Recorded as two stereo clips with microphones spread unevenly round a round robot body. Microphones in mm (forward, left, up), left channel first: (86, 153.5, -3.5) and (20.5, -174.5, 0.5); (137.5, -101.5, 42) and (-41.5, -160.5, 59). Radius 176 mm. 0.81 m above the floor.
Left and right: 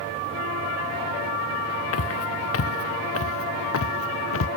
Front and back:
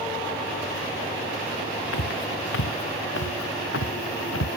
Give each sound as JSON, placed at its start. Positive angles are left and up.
{"t": 1.9, "sound": "footsteps", "azimuth_deg": 30}